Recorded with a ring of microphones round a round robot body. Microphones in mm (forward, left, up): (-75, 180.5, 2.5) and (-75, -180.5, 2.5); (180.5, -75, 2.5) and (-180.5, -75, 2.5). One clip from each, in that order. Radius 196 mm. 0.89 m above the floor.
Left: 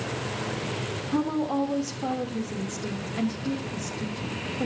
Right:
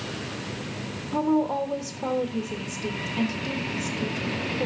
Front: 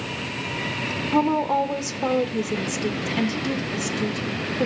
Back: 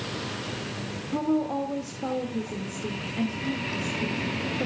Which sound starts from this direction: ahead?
A woman speaking, at 1.1 s.